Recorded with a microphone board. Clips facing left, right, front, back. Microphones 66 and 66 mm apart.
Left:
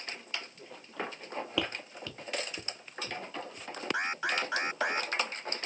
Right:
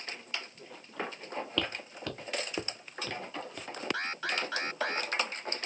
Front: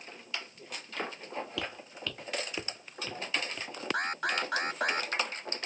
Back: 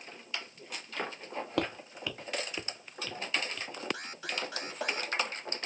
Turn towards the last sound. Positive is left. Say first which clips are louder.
# left 5 dB, front 8 dB
turn(degrees=20)